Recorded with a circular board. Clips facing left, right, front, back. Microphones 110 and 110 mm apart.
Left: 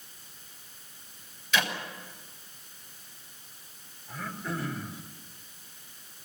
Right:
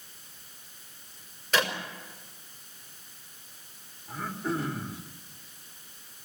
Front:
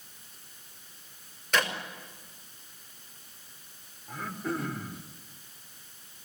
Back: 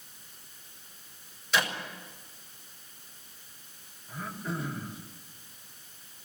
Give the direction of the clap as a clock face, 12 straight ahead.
1 o'clock.